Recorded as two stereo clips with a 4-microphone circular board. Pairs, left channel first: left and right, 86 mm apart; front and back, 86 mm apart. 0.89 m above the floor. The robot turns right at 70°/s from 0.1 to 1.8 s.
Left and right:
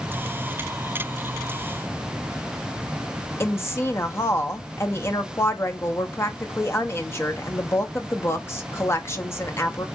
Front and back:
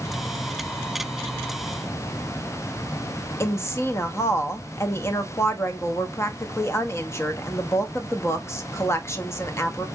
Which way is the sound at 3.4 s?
45° left.